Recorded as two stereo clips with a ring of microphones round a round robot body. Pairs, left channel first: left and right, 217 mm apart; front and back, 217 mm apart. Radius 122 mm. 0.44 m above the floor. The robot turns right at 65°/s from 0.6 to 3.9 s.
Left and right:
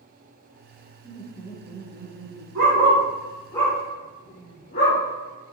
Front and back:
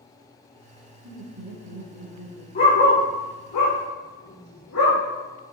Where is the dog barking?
50° right, 7.5 m; by 5.0 s 35° left, 7.5 m.